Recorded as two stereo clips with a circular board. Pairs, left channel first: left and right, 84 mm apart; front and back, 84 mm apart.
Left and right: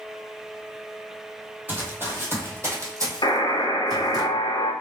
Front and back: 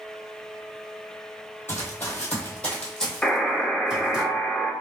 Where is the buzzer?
80° left, 0.5 m.